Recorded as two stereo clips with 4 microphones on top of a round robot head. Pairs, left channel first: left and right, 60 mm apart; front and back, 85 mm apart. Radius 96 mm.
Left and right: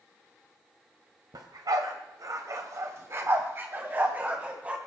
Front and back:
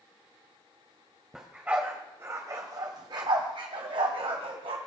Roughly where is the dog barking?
Right.